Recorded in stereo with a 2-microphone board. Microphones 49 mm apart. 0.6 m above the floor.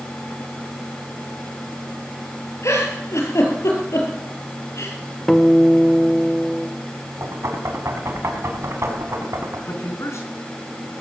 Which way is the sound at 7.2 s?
80° right.